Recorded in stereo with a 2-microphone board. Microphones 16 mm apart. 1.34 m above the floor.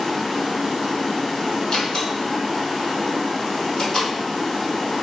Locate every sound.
0.0 s running water: 40° left (ahead or behind), 1.9 m
1.7 s a door slam: 40° left (ahead or behind), 1.8 m